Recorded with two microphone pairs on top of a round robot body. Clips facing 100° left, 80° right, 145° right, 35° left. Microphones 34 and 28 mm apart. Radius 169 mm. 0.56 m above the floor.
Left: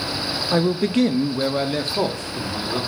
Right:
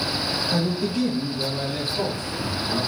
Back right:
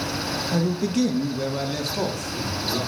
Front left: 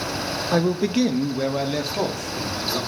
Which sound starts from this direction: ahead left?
A man speaking, at 0.5 s.